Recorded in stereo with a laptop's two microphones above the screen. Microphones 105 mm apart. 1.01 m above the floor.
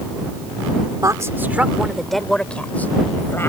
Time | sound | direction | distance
1.0 | a woman speaking | 35° right (ahead or behind) | ?